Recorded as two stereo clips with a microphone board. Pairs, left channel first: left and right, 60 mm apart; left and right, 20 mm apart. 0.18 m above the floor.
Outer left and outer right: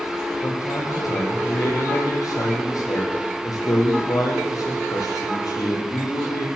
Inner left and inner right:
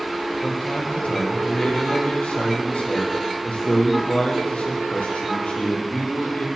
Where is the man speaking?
75° left (ahead or behind), 8 m.